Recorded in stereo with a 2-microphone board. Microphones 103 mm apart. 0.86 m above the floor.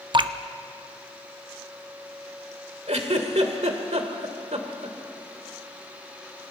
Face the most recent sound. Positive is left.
turn(degrees=-85)